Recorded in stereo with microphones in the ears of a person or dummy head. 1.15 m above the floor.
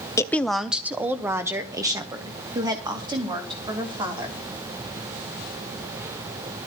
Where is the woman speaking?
15° left (ahead or behind), 0.5 m; by 4.4 s 20° right (ahead or behind), 3.5 m.